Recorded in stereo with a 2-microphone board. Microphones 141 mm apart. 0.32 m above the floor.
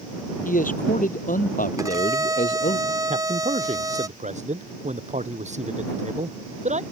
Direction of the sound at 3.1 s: 55° right (ahead or behind).